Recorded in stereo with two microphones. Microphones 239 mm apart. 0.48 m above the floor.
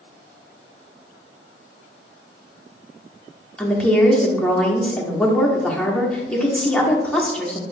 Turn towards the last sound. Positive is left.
turn(degrees=5)  # may be behind; listen again after turning